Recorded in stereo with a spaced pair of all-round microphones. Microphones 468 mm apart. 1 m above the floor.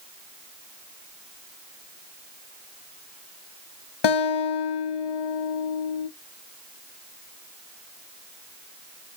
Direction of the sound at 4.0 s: 60° left (ahead or behind).